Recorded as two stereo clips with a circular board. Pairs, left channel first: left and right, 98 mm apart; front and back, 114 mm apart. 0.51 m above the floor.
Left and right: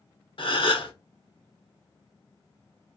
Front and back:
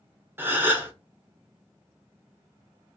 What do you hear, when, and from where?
0.4 s a gasp: 110° left, 0.6 m